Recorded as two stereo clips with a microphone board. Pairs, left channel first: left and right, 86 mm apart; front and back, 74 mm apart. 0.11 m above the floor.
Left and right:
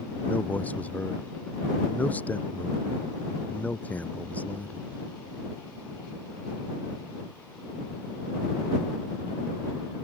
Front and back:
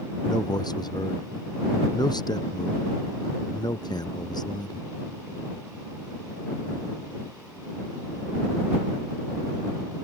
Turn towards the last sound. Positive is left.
turn(degrees=20)